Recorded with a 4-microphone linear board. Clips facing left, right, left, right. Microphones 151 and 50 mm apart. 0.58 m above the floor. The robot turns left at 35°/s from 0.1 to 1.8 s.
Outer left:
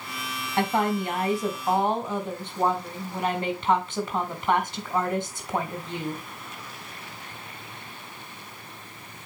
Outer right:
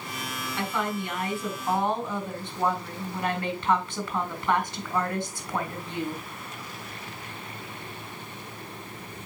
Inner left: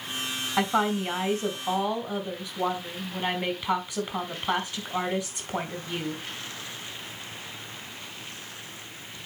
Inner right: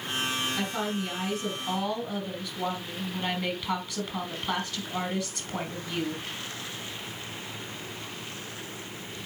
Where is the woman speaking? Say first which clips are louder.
Outer left 6 dB, inner left 6 dB; 65° left, 3 m; by 6.2 s 25° left, 3 m.